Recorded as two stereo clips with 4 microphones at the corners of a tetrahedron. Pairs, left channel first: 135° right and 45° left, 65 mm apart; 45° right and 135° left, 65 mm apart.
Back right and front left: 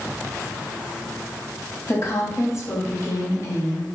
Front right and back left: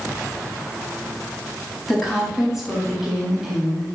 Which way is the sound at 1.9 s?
140° right.